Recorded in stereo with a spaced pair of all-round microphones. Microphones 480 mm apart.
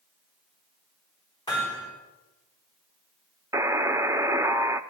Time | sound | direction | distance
1.5 | hammering | 10° left (ahead or behind) | 6.5 m
3.5 | a buzzer | 5° right (ahead or behind) | 0.5 m